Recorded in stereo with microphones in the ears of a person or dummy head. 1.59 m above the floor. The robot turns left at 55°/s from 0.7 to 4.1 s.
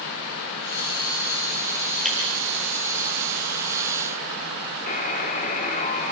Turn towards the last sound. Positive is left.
turn(degrees=40)  # may be behind; listen again after turning